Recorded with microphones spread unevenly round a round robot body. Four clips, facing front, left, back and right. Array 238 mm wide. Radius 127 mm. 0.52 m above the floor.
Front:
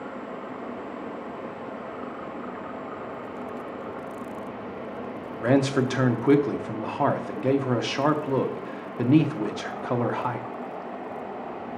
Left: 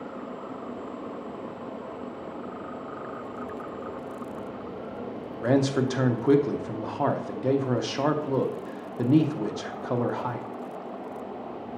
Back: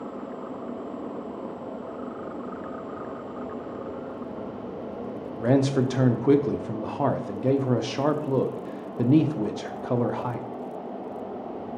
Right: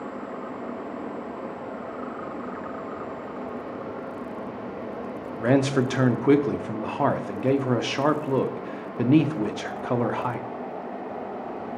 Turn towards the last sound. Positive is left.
turn(degrees=-45)